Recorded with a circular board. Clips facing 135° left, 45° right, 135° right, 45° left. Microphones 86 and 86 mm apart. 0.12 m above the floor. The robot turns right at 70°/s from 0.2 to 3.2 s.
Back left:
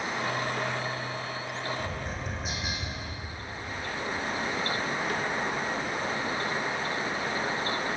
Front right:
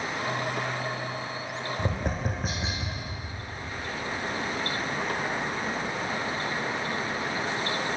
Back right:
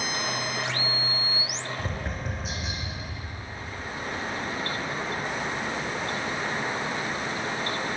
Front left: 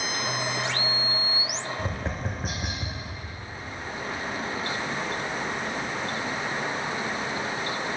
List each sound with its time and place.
1.8 s tapping: 45° right, 2.5 m; by 3.0 s 40° left, 2.5 m